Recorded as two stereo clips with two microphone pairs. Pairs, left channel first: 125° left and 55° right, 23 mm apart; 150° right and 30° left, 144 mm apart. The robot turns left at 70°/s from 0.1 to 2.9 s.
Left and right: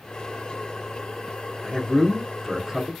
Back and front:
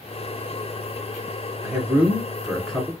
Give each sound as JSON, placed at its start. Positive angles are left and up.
{"t": 1.6, "sound": "a man speaking", "azimuth_deg": -5, "distance_m": 1.0}